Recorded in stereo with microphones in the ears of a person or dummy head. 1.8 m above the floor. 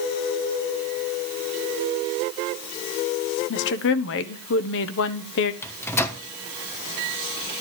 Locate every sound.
3.5 s a woman speaking: 75° left (ahead or behind), 1.2 m
5.6 s a microwave: 10° left (ahead or behind), 1.2 m